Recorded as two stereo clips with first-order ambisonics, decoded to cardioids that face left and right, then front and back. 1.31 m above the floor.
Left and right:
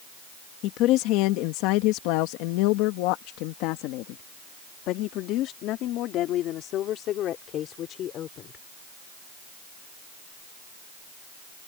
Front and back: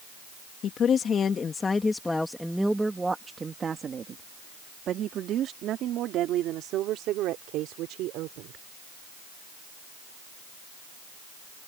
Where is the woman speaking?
55° left; by 8.6 s 145° left.